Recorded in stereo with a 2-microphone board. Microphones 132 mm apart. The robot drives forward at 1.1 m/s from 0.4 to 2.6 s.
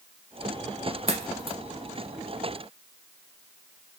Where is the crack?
50° right (ahead or behind), 1.8 m; by 1.6 s 45° right (ahead or behind), 2 m.